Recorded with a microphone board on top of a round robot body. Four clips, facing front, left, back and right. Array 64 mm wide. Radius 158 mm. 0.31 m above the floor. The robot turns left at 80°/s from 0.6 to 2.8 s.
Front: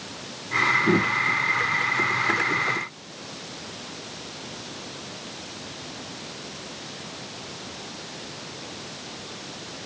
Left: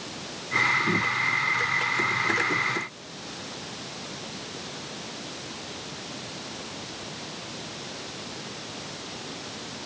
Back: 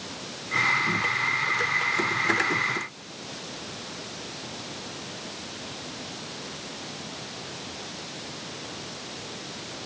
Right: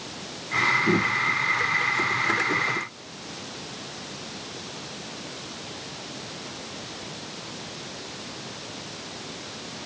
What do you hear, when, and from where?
Only background noise.